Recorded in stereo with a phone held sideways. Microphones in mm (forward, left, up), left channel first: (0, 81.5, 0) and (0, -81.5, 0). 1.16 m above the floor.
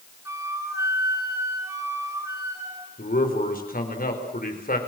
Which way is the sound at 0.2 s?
20° right (ahead or behind).